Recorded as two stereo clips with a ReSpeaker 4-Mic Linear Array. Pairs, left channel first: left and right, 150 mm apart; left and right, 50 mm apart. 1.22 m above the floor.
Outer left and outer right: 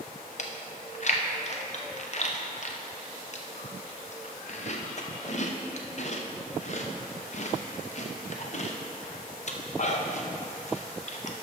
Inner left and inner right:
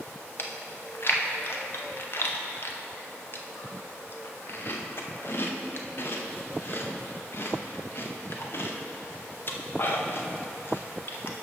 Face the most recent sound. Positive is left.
turn(degrees=50)  # may be behind; listen again after turning